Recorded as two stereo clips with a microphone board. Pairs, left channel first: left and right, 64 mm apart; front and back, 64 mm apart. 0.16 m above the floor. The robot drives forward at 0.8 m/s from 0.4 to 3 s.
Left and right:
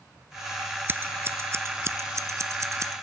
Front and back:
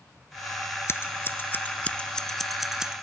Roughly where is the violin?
No violin in this recording.